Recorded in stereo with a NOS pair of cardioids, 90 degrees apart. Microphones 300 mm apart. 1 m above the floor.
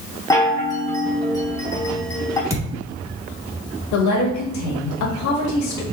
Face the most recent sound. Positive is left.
turn(degrees=70)